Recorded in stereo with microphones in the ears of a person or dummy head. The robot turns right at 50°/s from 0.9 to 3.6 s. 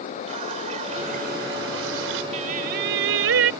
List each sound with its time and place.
0.3 s a running tap: 140° right; by 2.2 s 75° right
2.3 s singing: 140° right; by 3.5 s 80° right